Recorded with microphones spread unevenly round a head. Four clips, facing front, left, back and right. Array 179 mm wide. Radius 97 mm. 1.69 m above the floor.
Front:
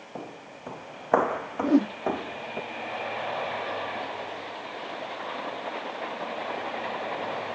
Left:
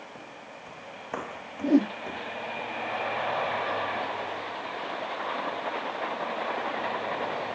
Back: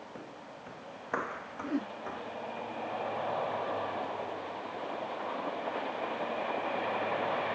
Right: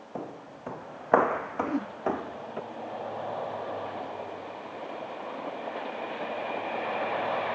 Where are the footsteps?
65° right; by 2.6 s 40° right.